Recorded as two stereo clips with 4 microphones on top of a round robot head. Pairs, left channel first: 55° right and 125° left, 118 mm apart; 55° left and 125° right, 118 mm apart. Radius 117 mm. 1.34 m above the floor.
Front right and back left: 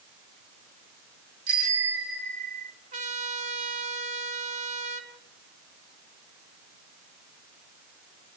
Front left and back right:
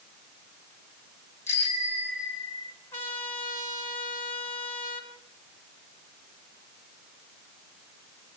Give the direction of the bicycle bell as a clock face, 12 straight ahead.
8 o'clock.